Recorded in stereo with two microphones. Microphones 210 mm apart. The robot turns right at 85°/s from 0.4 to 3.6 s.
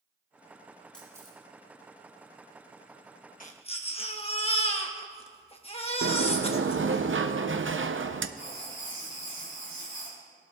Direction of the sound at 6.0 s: 70° right (ahead or behind).